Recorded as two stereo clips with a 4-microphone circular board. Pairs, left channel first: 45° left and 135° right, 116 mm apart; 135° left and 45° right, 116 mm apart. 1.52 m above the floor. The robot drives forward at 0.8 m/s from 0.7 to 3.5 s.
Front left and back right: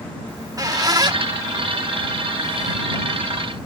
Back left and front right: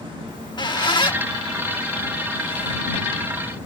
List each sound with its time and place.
0.3 s a squeak: 175° left; by 3.7 s straight behind